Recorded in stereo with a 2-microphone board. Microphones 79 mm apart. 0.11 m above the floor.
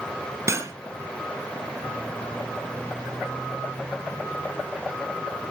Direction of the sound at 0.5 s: 40° right (ahead or behind).